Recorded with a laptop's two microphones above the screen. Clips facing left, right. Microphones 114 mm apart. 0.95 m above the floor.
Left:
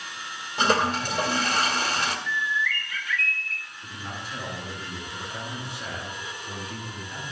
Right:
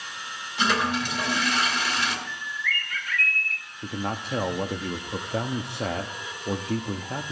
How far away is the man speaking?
About 1.0 m.